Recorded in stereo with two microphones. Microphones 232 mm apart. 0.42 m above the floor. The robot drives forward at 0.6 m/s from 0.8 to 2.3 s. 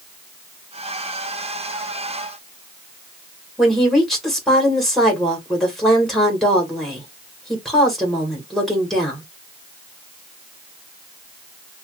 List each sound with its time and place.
3.6 s a woman speaking: centre (ahead or behind), 1.7 m